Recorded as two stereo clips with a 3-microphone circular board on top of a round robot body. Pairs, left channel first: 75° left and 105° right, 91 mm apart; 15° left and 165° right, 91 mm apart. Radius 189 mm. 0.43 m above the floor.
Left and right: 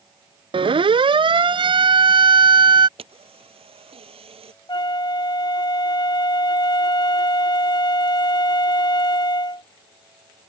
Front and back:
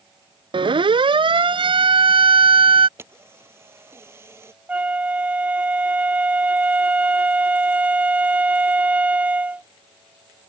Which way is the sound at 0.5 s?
135° right.